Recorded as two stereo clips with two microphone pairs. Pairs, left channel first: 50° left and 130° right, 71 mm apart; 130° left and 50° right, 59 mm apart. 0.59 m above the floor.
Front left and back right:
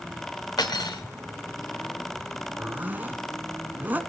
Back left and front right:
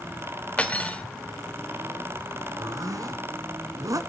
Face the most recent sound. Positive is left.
turn(degrees=-65)